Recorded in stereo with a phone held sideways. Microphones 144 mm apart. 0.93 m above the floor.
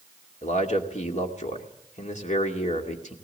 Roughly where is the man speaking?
Left.